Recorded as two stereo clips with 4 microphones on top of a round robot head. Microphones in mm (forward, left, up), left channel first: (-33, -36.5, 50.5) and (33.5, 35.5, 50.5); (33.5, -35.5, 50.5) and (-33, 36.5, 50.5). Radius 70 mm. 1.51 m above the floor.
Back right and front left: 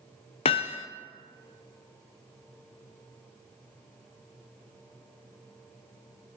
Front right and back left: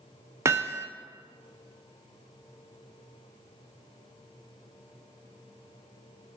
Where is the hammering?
165° right, 0.6 m.